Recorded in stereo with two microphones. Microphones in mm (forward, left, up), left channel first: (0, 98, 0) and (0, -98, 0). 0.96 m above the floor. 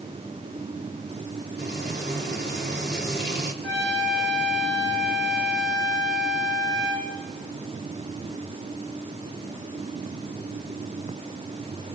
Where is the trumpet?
70° right (ahead or behind), 5 m.